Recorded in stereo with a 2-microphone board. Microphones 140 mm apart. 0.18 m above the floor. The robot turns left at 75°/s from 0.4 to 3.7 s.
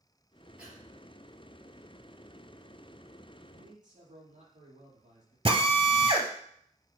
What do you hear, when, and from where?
0.6 s breathing: 10° right (ahead or behind), 3.5 m; by 0.8 s 5° left (ahead or behind), 3.5 m
3.5 s a man speaking: 55° right (ahead or behind), 5.5 m; by 5.3 s 70° right (ahead or behind), 5.5 m
5.5 s a drill: 45° right (ahead or behind), 1.4 m